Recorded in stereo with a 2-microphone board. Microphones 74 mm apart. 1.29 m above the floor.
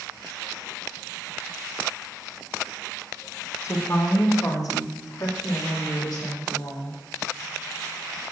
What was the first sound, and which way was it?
A woman speaking, 40° left (ahead or behind).